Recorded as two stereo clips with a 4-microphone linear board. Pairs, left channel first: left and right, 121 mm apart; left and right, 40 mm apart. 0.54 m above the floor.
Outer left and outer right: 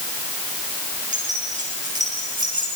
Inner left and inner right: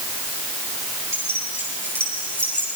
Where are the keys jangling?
80° right, 9 m; by 2.7 s 85° right, 10 m.